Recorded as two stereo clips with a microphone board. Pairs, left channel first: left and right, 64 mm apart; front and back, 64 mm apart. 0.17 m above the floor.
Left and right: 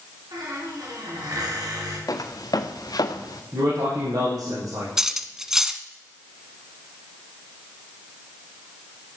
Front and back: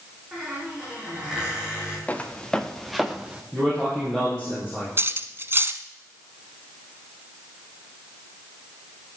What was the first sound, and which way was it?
A squeak, 100° right.